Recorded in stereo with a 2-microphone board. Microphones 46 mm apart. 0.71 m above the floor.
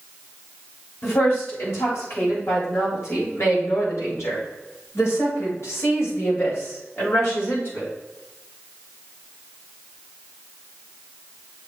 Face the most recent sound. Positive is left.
turn(degrees=50)  # may be behind; listen again after turning